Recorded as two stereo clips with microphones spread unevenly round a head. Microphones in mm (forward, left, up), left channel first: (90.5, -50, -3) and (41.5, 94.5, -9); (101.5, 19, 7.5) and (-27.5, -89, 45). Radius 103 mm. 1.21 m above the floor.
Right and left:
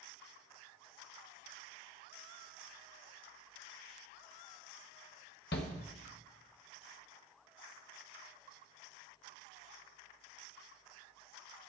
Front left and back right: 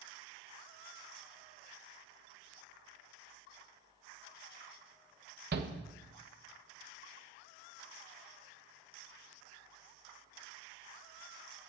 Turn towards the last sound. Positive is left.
turn(degrees=-115)